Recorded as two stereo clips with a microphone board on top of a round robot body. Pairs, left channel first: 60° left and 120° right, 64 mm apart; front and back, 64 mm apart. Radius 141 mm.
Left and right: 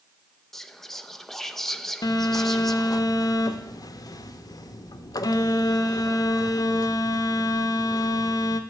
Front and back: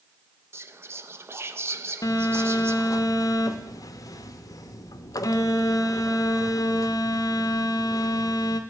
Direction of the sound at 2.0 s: 35° left.